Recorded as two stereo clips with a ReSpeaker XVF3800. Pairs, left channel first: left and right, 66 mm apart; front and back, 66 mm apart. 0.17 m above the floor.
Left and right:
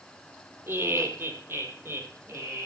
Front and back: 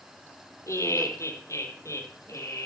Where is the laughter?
40° right, 4.5 m.